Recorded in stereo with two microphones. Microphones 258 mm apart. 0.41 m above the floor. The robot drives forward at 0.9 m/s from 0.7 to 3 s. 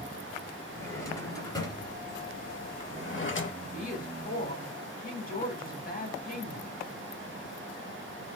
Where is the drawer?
10° left (ahead or behind), 2.5 m; by 3.5 s 50° left (ahead or behind), 0.6 m.